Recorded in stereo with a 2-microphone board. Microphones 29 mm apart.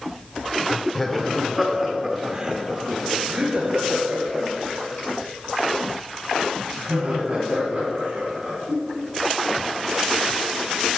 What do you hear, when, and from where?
0.9 s laughter: 10° left (ahead or behind), 1.0 m; by 10.9 s 55° right (ahead or behind), 4.5 m